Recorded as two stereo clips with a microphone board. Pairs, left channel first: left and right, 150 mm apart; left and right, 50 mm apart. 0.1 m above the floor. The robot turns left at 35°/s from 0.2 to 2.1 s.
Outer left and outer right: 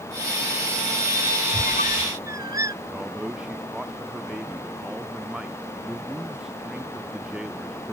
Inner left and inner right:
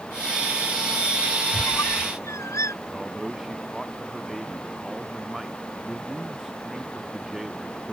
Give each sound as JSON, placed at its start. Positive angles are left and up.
{"t": 1.5, "sound": "a squeak", "side_deg": 60}
{"t": 2.9, "sound": "a man speaking", "side_deg": -5}